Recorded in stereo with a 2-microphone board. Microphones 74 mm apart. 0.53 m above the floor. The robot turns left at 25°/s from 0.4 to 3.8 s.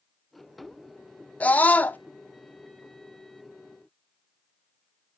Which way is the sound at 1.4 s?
20° left (ahead or behind).